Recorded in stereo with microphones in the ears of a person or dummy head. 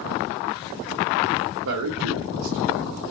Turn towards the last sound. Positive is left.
turn(degrees=-80)